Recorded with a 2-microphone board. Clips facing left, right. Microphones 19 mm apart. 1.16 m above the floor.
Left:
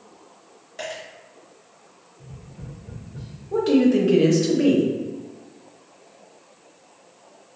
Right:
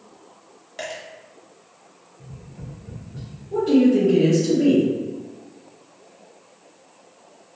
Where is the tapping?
45° right (ahead or behind), 1.0 m.